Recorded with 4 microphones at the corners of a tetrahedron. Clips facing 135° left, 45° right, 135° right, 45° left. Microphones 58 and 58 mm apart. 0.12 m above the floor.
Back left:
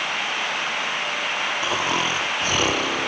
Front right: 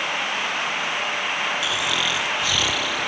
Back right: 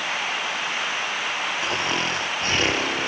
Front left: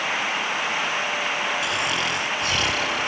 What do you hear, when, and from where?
1.6 s snoring: straight behind